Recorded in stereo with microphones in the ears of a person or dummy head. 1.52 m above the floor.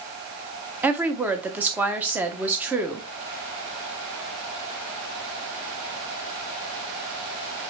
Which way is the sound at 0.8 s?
10° right (ahead or behind).